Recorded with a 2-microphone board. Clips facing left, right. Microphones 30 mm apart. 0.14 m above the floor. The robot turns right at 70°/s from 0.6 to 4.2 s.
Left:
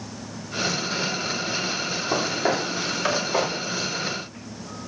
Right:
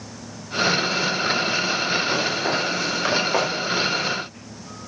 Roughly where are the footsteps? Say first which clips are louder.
Right 1 dB; left.